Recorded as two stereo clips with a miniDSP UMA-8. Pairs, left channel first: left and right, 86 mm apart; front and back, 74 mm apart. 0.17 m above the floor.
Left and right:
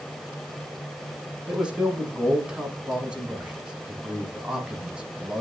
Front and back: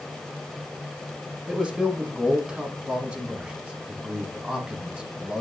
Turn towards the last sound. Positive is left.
turn(degrees=-140)